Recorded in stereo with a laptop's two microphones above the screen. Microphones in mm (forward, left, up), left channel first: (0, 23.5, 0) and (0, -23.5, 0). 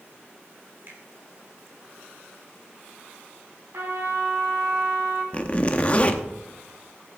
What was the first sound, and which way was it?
A finger snap, 50° right (ahead or behind).